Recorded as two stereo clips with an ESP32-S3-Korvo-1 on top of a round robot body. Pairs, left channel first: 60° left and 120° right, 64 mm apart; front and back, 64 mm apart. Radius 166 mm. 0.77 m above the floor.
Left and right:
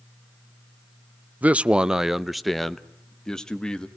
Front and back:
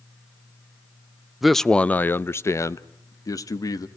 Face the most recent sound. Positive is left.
turn(degrees=-15)